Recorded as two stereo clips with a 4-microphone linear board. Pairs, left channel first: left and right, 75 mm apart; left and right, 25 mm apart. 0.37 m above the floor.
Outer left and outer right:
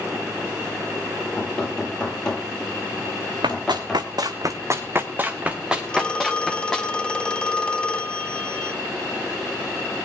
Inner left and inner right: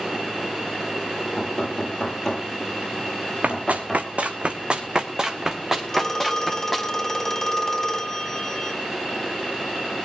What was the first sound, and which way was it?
Knocking, 5° left (ahead or behind).